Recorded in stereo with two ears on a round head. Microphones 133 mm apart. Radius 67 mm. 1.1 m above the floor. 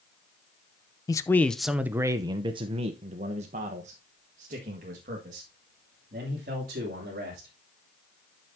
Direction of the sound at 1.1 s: 25° left (ahead or behind).